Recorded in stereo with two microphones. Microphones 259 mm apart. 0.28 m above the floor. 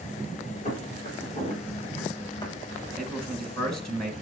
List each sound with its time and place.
0.7 s footsteps: 35° left (ahead or behind), 8 m; by 2.5 s 15° left (ahead or behind), 6 m
3.0 s a man speaking: centre (ahead or behind), 2.5 m